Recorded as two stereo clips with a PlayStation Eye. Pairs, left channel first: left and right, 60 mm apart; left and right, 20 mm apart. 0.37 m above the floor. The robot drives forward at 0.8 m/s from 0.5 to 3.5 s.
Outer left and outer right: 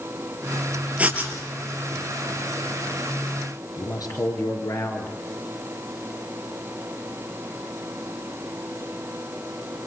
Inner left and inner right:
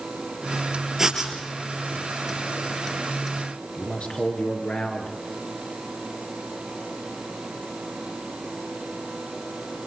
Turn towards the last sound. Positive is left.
turn(degrees=80)